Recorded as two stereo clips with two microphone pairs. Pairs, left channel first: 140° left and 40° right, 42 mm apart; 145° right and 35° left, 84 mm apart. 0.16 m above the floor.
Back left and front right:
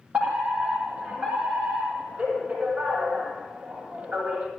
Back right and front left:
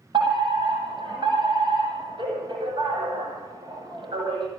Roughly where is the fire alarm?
Ahead.